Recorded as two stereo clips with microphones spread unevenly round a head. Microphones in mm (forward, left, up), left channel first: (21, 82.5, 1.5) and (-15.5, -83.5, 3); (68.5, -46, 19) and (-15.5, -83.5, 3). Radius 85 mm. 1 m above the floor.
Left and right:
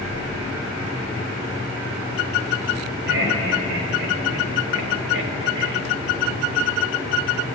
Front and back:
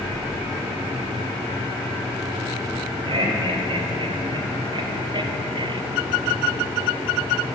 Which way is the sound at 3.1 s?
125° right.